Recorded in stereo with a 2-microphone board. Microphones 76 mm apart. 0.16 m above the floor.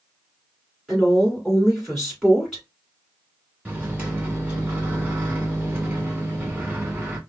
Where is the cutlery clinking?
I don't hear cutlery clinking.